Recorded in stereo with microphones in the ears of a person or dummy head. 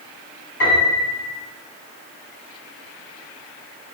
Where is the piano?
70° left (ahead or behind), 2.0 m.